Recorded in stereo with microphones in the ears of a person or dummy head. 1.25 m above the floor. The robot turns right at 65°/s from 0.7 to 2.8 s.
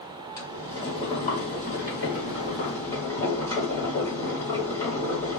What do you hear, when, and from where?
0.4 s boiling: 20° left, 1.4 m; by 5.4 s 155° left, 1.4 m